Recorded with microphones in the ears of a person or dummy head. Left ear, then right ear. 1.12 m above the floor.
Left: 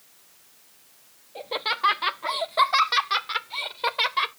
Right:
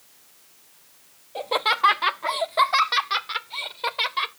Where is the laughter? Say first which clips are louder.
Right 5 dB; 45° right (ahead or behind); by 4.3 s 10° left (ahead or behind).